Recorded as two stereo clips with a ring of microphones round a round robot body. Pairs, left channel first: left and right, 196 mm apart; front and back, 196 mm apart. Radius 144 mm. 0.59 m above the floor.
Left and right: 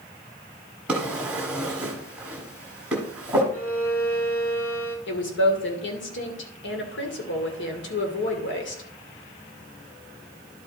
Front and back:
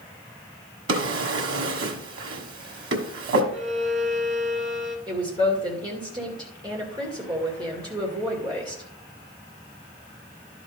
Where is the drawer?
175° right, 1.3 m.